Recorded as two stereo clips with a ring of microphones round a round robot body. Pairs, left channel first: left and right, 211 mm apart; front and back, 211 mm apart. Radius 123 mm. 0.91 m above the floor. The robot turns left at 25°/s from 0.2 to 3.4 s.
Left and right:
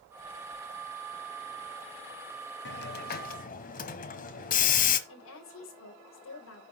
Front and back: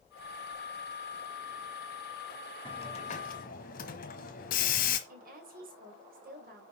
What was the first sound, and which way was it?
A hiss, 70° left.